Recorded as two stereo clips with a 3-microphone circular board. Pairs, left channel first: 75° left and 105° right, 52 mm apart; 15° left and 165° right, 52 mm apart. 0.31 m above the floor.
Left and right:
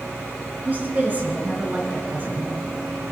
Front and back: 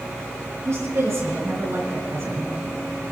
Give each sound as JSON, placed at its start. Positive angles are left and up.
{"t": 0.7, "sound": "a woman speaking", "azimuth_deg": -155, "distance_m": 5.5}